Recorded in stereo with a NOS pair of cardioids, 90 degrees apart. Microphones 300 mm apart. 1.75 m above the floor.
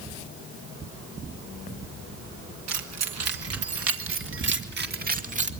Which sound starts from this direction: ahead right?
Keys jangling, at 2.7 s.